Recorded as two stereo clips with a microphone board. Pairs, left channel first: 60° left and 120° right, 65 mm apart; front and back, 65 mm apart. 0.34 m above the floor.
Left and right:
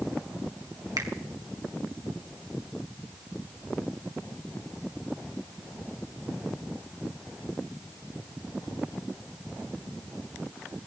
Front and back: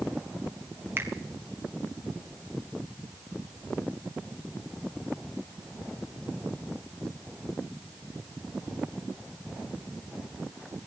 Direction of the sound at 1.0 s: 130° right.